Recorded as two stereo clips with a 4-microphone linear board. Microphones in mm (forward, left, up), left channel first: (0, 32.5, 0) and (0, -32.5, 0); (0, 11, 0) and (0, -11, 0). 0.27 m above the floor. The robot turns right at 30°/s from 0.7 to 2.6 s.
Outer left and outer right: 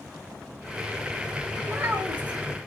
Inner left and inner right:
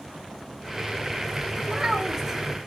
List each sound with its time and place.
1.6 s a child speaking: 35° right (ahead or behind), 1.0 m; by 2.4 s 20° right (ahead or behind), 1.0 m